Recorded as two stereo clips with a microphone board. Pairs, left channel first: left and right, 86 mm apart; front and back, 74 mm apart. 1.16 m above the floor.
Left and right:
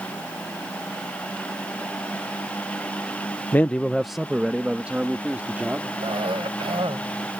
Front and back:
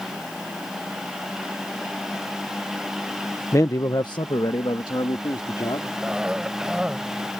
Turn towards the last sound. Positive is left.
turn(degrees=-100)